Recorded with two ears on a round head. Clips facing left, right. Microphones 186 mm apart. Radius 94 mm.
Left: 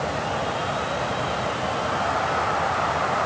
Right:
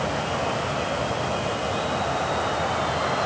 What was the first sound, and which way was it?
Only background noise.